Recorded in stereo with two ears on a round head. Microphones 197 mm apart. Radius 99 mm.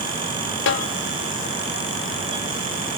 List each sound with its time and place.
0.7 s a snare drum: 55° left (ahead or behind), 0.5 m